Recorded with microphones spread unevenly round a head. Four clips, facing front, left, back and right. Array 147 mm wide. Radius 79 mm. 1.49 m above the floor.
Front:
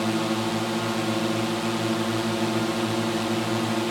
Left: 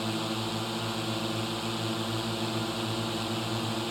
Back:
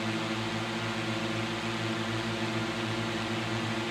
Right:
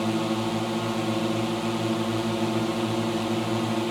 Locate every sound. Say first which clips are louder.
0.0 s a drone: right 7 dB, front 8 dB; 40° right